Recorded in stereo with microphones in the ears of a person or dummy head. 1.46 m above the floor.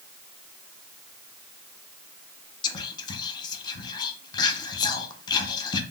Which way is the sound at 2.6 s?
20° left (ahead or behind).